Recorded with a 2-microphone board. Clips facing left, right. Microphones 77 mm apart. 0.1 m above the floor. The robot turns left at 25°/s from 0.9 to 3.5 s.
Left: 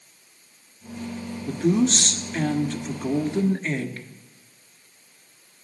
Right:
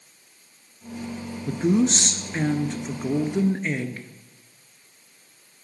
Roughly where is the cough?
No cough in this recording.